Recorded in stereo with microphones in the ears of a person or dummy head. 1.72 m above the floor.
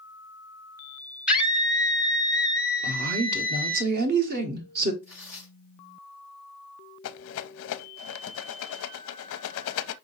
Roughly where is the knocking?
No knocking in this recording.